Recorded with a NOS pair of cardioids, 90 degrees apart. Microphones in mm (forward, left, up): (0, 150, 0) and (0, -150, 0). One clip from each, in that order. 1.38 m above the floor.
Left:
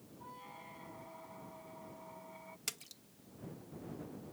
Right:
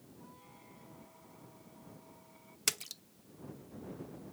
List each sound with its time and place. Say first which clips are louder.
0.2 s a squeak: left 8 dB; 55° left
2.7 s a splash: right 9 dB; 50° right